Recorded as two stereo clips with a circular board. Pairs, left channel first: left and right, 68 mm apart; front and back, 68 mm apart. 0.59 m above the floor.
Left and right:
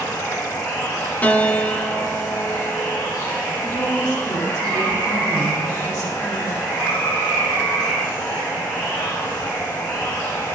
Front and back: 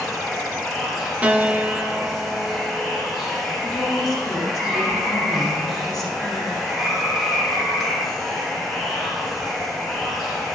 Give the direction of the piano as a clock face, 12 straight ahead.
8 o'clock.